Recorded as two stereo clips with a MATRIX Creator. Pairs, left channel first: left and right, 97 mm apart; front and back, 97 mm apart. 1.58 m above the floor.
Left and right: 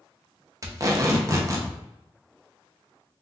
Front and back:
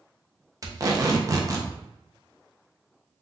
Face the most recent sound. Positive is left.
turn(degrees=-135)